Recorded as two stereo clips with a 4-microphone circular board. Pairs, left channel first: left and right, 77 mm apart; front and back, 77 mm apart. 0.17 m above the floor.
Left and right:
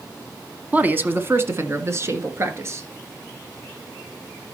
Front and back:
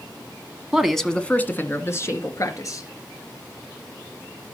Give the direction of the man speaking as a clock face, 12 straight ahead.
4 o'clock.